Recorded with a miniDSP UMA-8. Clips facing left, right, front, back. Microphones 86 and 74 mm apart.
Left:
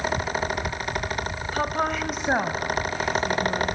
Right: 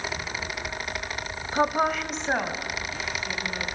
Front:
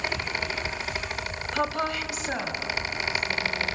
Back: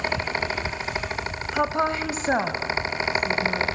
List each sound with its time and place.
1.5 s a woman speaking: 110° right, 0.9 m; by 3.7 s 145° left, 2.5 m